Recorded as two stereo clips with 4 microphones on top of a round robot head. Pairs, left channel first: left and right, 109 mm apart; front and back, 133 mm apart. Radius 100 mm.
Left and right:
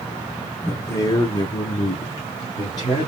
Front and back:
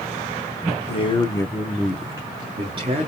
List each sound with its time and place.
0.7 s a man speaking: 25° left, 1.2 m; by 3.1 s 150° left, 1.4 m